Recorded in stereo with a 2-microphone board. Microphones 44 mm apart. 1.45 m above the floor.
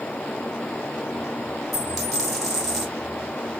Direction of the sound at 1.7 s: Centre (ahead or behind).